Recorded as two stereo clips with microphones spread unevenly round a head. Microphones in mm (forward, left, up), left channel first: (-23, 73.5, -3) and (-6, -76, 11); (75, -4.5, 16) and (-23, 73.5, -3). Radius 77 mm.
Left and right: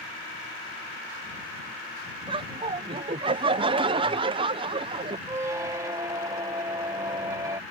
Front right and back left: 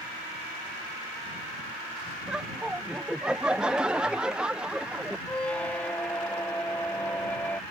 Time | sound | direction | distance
2.3 | laughter | 140° right | ?
5.3 | a squeak | 80° right | ?